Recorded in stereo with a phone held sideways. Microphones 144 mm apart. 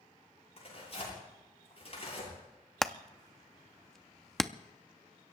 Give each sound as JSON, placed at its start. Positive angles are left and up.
{"t": 0.6, "sound": "tearing paper", "side_deg": 45, "distance_m": 9.0}
{"t": 2.8, "sound": "hammering", "side_deg": 5, "distance_m": 0.6}